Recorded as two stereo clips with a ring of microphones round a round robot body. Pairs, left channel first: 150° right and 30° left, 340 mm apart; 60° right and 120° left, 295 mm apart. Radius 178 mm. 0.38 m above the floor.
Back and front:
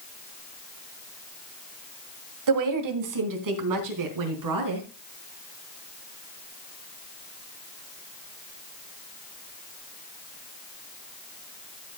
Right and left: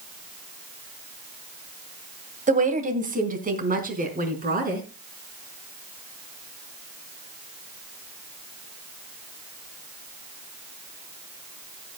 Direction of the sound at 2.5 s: 55° left.